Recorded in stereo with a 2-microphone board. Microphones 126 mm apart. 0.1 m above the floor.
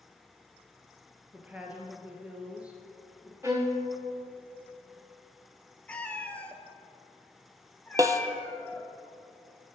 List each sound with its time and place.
1.3 s a woman speaking: 10° right (ahead or behind), 1.5 m
3.4 s a violin: 20° right (ahead or behind), 1.4 m
5.9 s a cat meowing: 10° left (ahead or behind), 0.7 m
8.0 s a snare drum: 25° right (ahead or behind), 0.6 m